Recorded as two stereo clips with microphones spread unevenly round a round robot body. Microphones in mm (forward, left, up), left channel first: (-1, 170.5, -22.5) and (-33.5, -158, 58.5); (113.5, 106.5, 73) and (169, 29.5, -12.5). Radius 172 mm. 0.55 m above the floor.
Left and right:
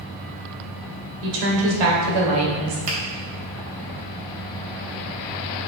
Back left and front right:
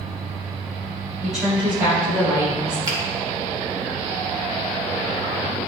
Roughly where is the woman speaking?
Behind right.